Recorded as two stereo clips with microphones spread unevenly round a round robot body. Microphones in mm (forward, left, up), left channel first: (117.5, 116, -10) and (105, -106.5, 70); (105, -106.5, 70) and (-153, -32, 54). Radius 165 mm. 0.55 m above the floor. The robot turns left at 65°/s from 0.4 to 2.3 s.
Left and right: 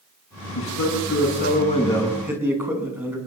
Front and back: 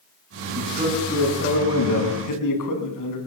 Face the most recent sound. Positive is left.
turn(degrees=-10)